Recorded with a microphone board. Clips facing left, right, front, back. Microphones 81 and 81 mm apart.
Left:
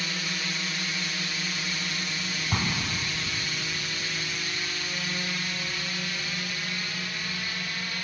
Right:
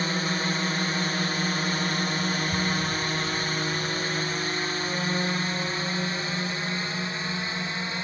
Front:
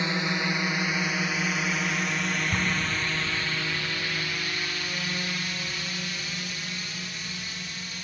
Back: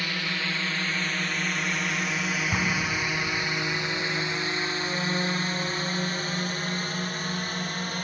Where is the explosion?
105° left.